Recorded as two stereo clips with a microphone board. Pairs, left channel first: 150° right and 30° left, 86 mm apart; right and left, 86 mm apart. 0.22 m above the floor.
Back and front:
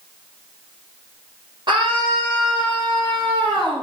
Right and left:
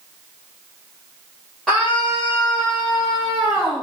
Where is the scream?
5° right, 7.5 m; by 3.8 s straight ahead, 9 m.